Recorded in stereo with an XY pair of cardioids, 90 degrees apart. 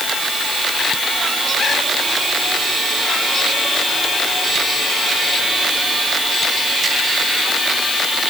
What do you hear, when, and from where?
Only background noise.